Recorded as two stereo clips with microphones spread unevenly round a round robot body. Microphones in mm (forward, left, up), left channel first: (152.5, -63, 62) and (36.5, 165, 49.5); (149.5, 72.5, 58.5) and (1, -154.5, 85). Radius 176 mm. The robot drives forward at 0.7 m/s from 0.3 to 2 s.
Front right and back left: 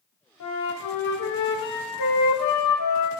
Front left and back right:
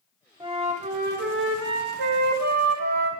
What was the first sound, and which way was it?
A flute, 50° right.